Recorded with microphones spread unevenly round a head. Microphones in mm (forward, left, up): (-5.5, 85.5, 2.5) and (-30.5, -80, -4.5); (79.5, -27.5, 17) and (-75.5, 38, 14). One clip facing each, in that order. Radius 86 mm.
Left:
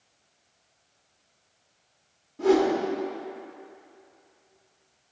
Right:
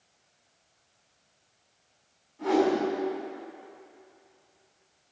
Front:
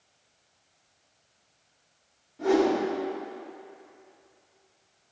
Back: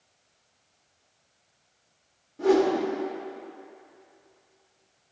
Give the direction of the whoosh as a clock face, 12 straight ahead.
8 o'clock.